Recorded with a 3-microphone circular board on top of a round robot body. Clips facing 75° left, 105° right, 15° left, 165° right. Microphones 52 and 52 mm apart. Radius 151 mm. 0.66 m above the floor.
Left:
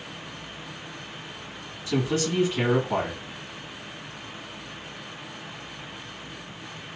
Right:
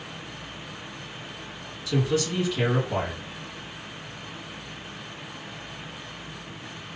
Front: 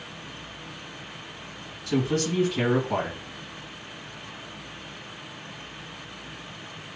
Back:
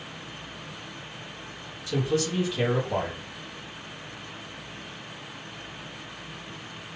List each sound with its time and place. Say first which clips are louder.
1.9 s a man speaking: even, front 1 dB; 25° left, 1.9 m